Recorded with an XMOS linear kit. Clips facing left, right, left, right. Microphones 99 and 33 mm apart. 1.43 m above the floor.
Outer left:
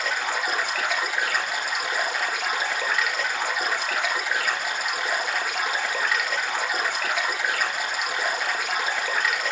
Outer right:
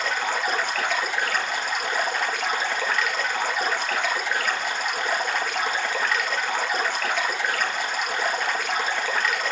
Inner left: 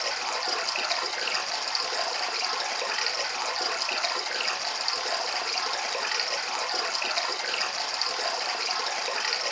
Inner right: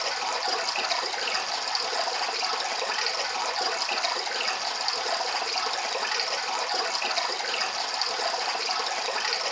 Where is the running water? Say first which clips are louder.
Outer right 1 dB, inner right 1 dB; 5° left (ahead or behind), 1.9 m.